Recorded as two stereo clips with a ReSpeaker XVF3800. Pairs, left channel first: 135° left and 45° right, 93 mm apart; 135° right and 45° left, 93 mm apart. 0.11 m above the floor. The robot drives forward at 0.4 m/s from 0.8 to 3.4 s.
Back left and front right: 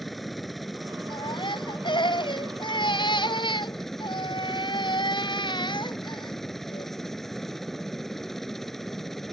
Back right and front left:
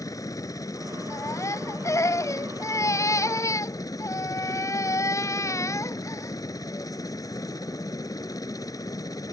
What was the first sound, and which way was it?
A helicopter, 135° right.